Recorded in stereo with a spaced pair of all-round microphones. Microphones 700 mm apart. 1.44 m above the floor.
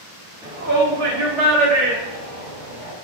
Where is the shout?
5° right (ahead or behind), 0.6 m; by 2.9 s 80° right, 1.8 m.